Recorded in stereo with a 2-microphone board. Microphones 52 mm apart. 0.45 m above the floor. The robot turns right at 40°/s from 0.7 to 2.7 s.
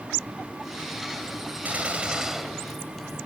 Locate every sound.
1.6 s a gunshot: 35° right, 1.3 m; by 3.2 s 5° left, 1.3 m